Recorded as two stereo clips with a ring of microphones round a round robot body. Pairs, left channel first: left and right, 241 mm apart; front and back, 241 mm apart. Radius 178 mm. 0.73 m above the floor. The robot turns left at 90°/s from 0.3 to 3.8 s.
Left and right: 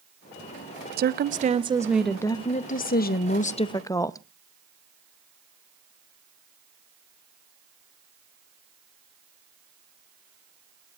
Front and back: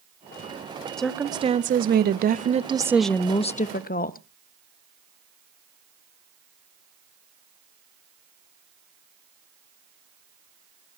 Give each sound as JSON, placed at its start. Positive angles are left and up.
{"t": 1.0, "sound": "a woman speaking", "azimuth_deg": -85, "distance_m": 0.6}